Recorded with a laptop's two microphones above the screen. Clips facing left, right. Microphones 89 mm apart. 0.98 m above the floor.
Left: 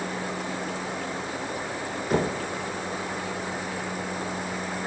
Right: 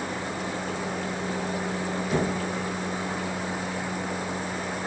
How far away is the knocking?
About 0.7 m.